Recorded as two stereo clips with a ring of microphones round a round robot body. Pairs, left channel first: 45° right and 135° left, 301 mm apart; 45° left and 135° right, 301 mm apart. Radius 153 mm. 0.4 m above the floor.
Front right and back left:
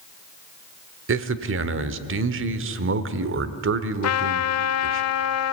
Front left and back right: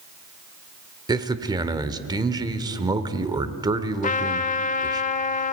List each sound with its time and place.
1.1 s a man speaking: 155° left, 1.1 m
4.0 s a trumpet: 15° right, 0.8 m